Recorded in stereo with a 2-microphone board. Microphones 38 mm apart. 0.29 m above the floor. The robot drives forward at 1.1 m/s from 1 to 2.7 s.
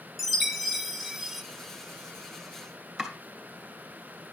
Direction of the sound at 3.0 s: 5° left (ahead or behind).